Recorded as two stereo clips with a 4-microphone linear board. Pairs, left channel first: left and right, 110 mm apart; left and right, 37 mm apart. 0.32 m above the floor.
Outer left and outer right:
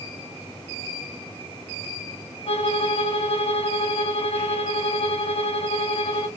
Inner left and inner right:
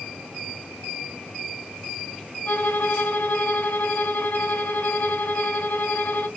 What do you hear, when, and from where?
2.5 s a violin: 60° left (ahead or behind), 0.6 m